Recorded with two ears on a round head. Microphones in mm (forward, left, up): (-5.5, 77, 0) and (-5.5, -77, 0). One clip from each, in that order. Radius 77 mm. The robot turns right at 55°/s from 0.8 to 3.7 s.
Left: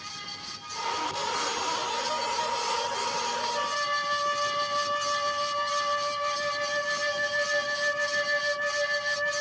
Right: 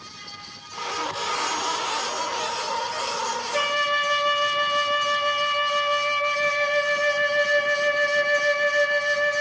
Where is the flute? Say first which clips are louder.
Right 6 dB; 55° right (ahead or behind), 0.6 m; by 9.4 s 45° right (ahead or behind), 0.6 m.